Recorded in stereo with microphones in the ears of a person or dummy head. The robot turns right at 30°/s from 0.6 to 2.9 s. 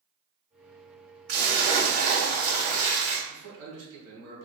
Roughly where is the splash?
Right.